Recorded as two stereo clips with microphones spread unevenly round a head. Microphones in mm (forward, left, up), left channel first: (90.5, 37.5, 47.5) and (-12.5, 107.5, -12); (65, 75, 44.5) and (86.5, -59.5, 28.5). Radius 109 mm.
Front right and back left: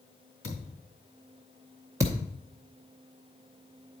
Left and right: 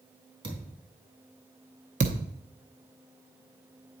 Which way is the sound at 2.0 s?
120° right.